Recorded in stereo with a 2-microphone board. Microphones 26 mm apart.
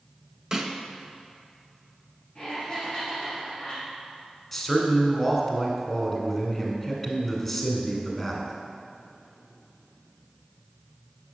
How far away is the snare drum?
About 0.7 m.